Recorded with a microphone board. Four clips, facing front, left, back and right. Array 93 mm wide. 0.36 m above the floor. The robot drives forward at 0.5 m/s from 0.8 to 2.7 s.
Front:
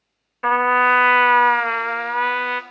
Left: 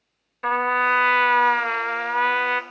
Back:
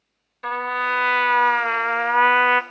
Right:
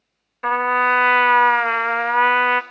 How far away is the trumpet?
About 0.9 m.